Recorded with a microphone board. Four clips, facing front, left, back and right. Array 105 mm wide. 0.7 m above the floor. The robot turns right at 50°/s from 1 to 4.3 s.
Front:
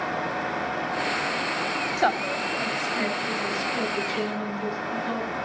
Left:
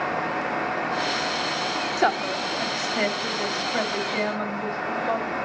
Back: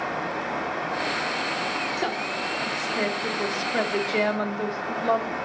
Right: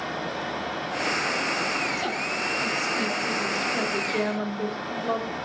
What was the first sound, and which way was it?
A woman speaking, 55° left.